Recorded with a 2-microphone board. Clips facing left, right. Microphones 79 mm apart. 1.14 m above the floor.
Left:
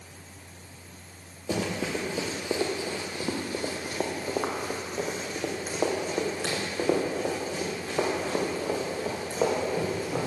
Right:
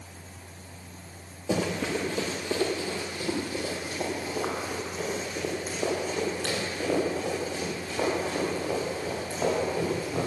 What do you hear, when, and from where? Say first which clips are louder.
1.5 s running footsteps: right 2 dB; 5° right (ahead or behind), 1.8 m; by 10.3 s 75° left (ahead or behind), 5.5 m